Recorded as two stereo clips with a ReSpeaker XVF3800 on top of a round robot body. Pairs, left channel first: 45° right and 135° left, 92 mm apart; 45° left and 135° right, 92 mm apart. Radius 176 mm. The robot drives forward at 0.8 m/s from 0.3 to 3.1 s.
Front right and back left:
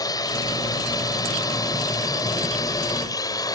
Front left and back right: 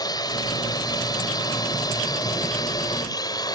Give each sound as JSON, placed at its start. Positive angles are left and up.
{"t": 0.0, "sound": "a drone", "azimuth_deg": 0}